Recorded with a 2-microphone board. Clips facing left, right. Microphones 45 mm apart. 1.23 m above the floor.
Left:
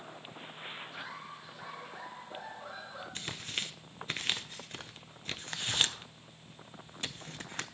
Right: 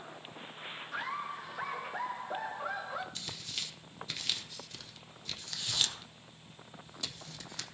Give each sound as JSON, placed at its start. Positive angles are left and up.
{"t": 0.9, "sound": "laughter", "side_deg": -65, "distance_m": 2.5}
{"t": 3.1, "sound": "tearing paper", "side_deg": 40, "distance_m": 0.5}